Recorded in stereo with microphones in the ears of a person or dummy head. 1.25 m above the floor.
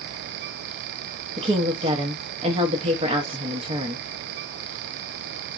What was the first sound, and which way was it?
A woman speaking, 35° right (ahead or behind).